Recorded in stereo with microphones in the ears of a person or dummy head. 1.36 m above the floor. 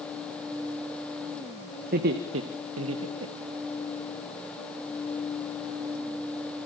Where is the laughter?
45° right (ahead or behind), 1.8 m; by 3.7 s 75° right (ahead or behind), 3.5 m.